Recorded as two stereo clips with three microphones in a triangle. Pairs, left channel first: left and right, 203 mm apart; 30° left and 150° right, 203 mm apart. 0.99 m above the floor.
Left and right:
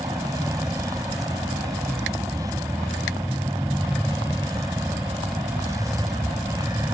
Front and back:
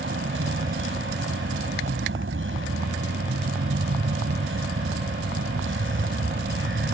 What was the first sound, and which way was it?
A vehicle, 165° right.